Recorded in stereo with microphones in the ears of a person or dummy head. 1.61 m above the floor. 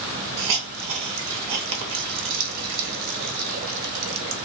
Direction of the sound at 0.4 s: 65° right (ahead or behind).